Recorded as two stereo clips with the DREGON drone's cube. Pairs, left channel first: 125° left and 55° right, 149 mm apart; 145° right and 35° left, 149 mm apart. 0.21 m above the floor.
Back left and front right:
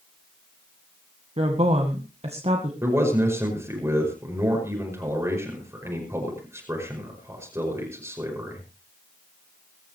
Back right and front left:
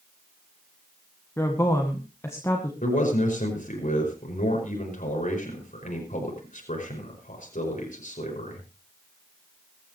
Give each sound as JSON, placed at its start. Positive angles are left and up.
{"t": 1.4, "sound": "a woman speaking", "azimuth_deg": -80, "distance_m": 1.8}
{"t": 2.8, "sound": "a man speaking", "azimuth_deg": -125, "distance_m": 5.5}